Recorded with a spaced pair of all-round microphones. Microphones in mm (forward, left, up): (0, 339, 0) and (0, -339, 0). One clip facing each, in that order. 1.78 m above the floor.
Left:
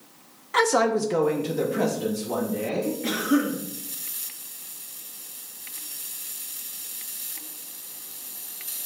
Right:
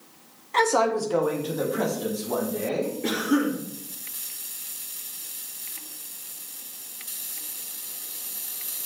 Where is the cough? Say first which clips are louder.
Even; 10° left (ahead or behind), 2.5 m.